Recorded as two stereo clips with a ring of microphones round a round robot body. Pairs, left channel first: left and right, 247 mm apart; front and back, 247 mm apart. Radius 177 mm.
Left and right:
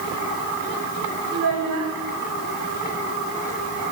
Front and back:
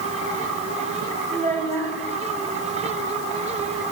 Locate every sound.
1.3 s a child speaking: 110° right, 1.9 m